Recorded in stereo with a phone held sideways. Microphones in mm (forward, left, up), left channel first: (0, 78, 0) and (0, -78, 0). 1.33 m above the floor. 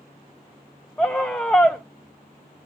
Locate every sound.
1.0 s a scream: 10° left (ahead or behind), 0.9 m